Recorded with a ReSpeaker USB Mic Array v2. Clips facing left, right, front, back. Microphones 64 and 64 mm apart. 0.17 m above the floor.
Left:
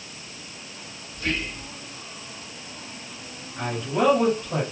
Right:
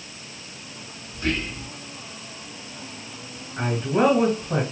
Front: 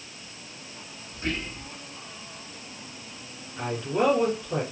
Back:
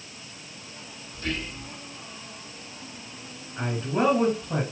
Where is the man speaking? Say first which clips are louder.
Right 3 dB, even; 135° right, 2.5 m.